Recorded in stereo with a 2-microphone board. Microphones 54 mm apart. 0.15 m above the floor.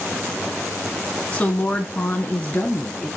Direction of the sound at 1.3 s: 20° left (ahead or behind).